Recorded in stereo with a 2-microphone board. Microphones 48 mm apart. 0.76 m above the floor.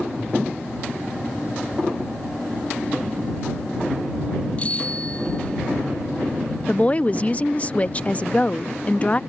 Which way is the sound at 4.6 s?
25° left (ahead or behind).